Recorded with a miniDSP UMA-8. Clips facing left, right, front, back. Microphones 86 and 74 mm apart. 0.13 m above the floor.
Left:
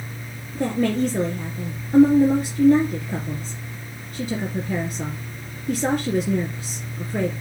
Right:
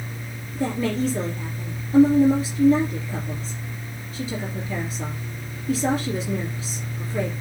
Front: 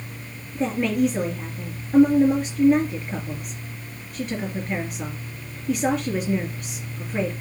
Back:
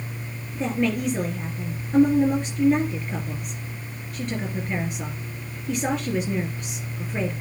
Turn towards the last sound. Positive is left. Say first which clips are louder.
# left 3 dB, front 2 dB
turn(degrees=85)